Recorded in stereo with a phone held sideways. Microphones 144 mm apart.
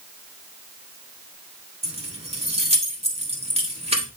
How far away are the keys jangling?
About 1.7 m.